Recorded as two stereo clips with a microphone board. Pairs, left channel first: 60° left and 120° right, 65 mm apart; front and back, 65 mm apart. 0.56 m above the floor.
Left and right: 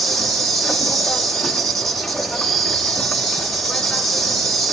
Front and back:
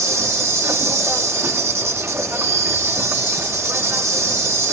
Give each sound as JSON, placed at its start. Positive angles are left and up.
{"t": 0.0, "sound": "an insect", "azimuth_deg": 145, "distance_m": 3.5}